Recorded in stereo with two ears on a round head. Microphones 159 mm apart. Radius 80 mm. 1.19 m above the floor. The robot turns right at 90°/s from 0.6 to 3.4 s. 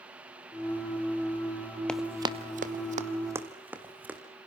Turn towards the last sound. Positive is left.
turn(degrees=-10)  # may be behind; listen again after turning